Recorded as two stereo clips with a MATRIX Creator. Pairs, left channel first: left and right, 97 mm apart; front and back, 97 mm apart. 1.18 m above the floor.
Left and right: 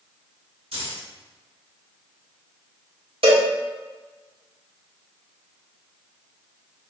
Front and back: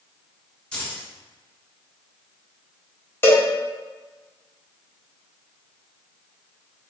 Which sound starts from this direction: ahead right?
A cowbell, at 3.2 s.